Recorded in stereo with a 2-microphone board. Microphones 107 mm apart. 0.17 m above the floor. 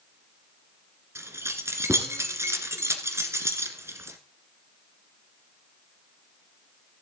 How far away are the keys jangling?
About 1.5 m.